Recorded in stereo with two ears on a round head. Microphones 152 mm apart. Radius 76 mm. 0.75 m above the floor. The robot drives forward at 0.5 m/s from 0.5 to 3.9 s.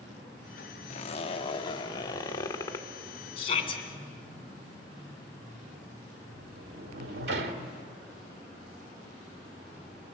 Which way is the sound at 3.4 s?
35° left (ahead or behind).